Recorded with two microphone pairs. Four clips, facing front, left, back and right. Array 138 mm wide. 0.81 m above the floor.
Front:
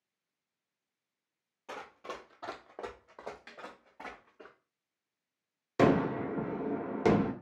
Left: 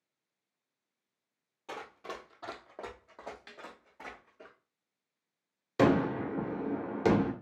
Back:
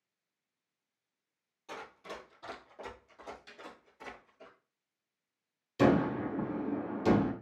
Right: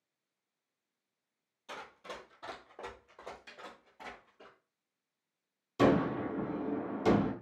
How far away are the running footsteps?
About 1.1 m.